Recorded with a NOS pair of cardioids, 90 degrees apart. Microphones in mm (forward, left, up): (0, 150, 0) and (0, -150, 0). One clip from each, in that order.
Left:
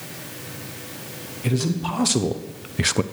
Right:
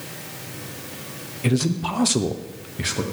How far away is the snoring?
No snoring in this recording.